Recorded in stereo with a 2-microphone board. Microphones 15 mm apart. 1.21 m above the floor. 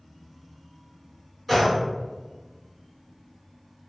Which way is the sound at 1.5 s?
5° right (ahead or behind).